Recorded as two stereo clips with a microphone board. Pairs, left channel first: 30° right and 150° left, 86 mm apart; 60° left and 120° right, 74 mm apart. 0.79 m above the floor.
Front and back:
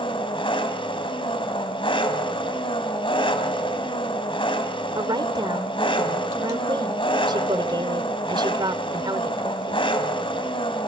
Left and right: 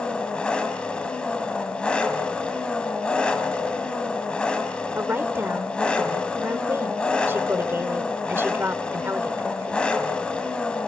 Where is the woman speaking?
Straight behind, 2 m.